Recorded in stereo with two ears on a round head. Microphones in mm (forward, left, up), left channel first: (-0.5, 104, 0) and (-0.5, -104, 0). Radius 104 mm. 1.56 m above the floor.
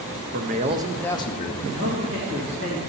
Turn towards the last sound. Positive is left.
turn(degrees=-55)  # may be behind; listen again after turning